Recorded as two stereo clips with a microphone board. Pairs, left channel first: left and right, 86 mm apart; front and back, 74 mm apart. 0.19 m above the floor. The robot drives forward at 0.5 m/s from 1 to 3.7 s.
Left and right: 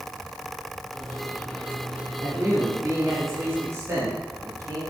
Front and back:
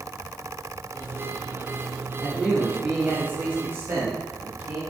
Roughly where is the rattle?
I don't hear a rattle.